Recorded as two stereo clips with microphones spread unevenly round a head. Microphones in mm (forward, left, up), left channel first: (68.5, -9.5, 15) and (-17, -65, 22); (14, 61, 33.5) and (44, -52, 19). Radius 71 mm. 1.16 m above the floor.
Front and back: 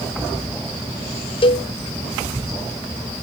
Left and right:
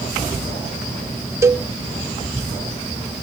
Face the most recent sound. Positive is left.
turn(degrees=-5)